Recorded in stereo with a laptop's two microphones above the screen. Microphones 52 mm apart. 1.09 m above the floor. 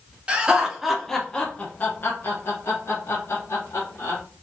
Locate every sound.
0.3 s laughter: 20° right (ahead or behind), 0.9 m; by 4.2 s 70° left (ahead or behind), 1.9 m